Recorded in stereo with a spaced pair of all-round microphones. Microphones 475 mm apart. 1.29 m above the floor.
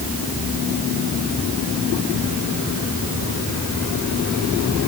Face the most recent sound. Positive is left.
No sound to turn to.